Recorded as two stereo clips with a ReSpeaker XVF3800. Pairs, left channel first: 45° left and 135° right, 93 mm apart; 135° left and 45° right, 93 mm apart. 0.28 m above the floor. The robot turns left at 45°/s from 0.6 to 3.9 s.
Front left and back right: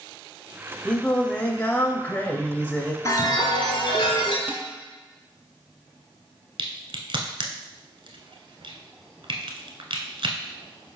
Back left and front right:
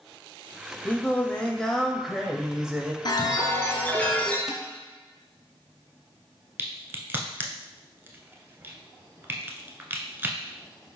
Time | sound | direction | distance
0.8 | singing | 105° left | 0.5 m
3.0 | a chime | 100° left | 0.9 m
4.5 | dishes clattering | 120° right | 0.6 m
6.6 | a crack | 115° right | 0.7 m